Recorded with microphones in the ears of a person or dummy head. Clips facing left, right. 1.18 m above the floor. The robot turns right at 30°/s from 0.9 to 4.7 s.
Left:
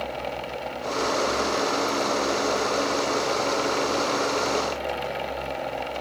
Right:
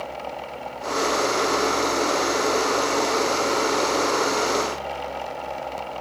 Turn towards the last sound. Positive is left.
No sound to turn to.